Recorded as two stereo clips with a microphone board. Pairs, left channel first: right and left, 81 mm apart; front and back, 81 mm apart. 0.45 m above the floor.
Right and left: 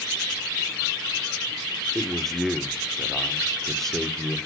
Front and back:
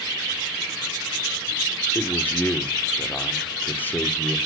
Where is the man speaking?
10° right, 1.2 m.